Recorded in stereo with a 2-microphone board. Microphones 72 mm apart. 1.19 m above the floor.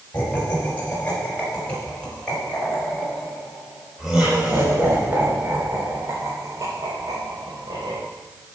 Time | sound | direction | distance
0.1 | laughter | 25° left (ahead or behind) | 6.5 m